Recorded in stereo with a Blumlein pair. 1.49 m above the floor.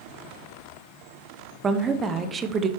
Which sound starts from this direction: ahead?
A woman speaking, at 1.6 s.